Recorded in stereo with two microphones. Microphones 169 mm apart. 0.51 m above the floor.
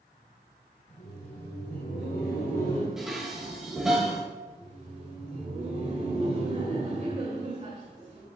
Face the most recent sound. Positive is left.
turn(degrees=-45)  # may be behind; listen again after turning